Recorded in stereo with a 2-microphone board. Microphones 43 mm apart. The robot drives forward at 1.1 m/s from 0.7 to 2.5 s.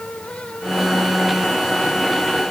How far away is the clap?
I don't hear a clap.